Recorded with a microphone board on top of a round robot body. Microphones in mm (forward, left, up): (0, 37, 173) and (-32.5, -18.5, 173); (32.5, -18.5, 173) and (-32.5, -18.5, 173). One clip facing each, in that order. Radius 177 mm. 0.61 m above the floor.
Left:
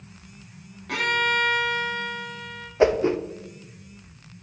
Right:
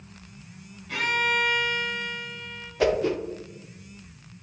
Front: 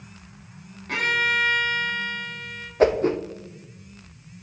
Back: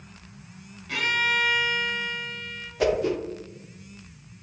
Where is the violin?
45° left, 1.6 m.